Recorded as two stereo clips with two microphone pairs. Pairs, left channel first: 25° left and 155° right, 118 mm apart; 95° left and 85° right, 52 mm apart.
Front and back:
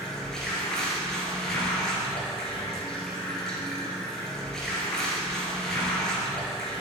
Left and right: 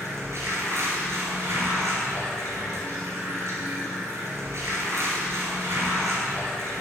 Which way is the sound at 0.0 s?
60° right.